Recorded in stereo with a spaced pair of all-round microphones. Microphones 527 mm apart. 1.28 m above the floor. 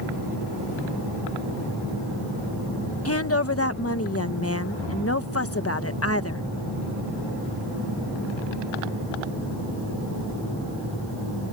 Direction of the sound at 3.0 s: 25° left (ahead or behind).